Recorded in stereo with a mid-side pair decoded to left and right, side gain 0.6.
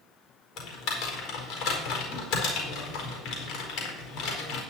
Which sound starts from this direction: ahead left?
Typing on a keyboard, at 0.6 s.